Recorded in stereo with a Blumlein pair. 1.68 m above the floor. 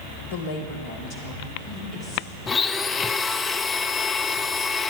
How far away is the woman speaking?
About 1.3 m.